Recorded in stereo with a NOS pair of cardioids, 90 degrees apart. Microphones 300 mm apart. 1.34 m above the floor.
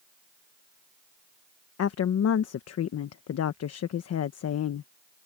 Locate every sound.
1.8 s a woman speaking: 55° left